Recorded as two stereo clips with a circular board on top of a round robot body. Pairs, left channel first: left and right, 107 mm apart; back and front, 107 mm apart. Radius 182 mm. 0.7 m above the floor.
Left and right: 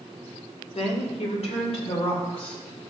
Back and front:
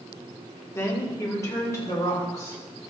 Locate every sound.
0.8 s a woman speaking: 115° left, 2 m